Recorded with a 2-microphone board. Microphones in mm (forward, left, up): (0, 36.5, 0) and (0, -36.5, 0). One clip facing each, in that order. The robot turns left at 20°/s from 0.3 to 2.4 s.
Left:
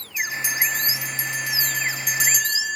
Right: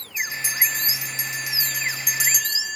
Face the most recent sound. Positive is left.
turn(degrees=180)